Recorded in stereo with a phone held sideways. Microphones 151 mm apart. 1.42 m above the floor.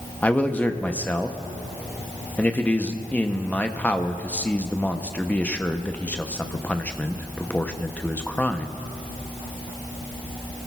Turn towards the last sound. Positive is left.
turn(degrees=10)  # may be behind; listen again after turning